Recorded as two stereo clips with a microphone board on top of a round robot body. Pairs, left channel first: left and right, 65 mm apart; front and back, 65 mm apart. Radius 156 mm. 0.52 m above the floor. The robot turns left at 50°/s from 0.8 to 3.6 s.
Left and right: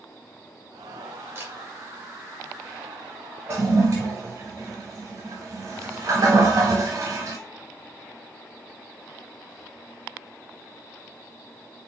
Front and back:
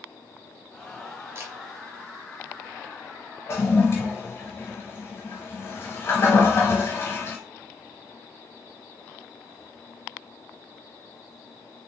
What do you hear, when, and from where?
1.4 s a camera shutter: 135° right, 1.6 m; by 1.5 s 145° right, 1.6 m
3.5 s a toilet flushing: 45° right, 0.5 m; by 7.4 s 50° right, 0.5 m